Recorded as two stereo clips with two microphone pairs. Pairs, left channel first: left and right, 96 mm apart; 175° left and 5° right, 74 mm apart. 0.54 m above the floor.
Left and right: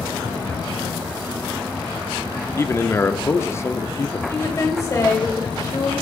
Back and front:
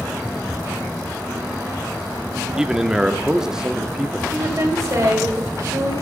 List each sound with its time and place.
2.6 s a man speaking: 65° left, 0.7 m
4.3 s a woman speaking: 35° left, 2.5 m